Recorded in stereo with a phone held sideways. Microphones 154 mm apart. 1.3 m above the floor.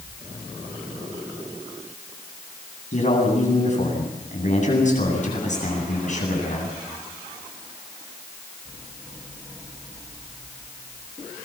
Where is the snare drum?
No snare drum in this recording.